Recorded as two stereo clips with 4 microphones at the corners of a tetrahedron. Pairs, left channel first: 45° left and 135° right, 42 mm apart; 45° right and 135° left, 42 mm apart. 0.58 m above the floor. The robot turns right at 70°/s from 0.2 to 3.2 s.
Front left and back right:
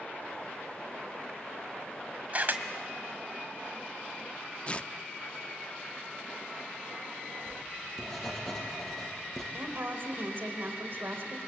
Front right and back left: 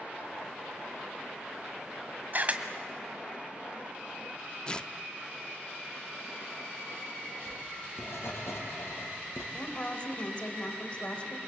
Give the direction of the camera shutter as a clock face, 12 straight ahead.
6 o'clock.